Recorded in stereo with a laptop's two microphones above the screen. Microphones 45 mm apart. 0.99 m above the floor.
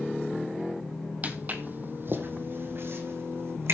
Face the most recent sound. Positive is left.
turn(degrees=-65)  # may be behind; listen again after turning